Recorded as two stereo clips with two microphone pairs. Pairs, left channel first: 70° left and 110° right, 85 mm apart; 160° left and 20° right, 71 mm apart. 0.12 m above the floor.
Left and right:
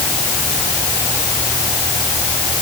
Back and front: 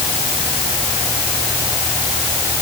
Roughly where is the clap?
I don't hear a clap.